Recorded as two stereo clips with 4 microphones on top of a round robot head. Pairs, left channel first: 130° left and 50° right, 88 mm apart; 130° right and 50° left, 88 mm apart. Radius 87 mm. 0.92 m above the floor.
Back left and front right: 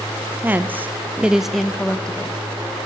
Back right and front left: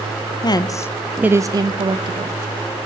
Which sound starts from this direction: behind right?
A woman speaking, at 0.4 s.